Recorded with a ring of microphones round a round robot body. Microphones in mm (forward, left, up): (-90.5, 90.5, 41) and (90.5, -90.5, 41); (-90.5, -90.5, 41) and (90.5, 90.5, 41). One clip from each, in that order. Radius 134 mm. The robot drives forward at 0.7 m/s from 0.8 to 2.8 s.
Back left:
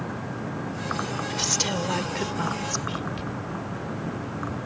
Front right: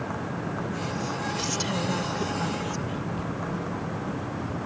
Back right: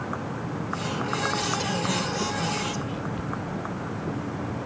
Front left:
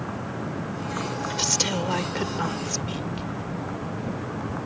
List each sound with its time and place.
1.3 s a woman speaking: 70° left; by 3.3 s 90° left